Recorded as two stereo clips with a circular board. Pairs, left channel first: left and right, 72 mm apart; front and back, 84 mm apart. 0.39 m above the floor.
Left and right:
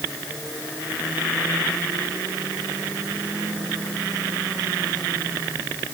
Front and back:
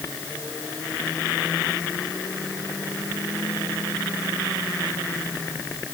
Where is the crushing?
I don't hear crushing.